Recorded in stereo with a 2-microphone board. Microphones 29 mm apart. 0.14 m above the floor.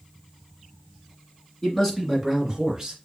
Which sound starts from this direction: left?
A man speaking, at 1.6 s.